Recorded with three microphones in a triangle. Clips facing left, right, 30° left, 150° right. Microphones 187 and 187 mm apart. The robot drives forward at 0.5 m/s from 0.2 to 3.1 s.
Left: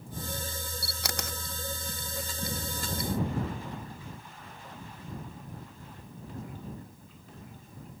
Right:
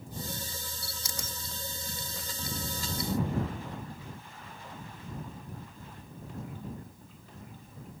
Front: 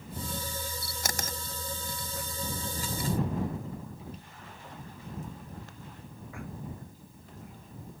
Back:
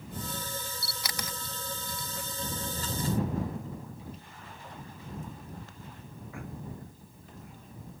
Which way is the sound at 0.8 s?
70° left.